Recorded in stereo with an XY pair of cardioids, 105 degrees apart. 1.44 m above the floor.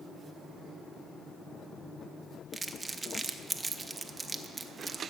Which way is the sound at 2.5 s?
20° right.